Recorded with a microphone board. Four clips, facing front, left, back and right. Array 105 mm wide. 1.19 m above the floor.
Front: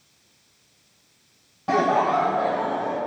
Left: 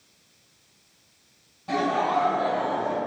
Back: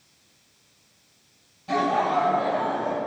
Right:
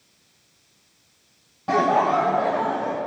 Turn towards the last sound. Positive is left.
turn(degrees=-75)